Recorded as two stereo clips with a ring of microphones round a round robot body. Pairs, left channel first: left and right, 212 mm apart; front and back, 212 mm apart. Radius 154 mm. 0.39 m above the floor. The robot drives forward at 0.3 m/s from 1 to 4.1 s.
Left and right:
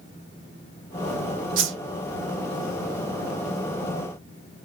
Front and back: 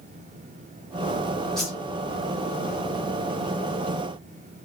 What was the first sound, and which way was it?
A whoosh, 90° right.